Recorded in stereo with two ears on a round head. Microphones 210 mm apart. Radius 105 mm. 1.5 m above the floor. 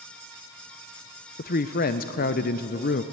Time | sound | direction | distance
1.4 | a woman speaking | 35° left (ahead or behind) | 0.6 m